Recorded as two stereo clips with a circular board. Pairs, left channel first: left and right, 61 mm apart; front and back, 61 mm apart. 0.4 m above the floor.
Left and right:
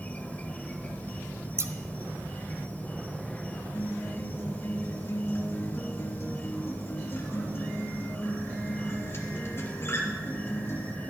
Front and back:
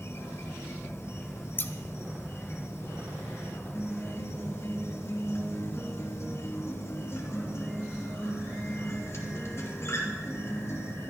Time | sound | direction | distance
0.0 | an insect | 30° left | 1.0 m
1.6 | scissors | 50° right | 1.0 m
3.7 | a guitar | 45° left | 2.5 m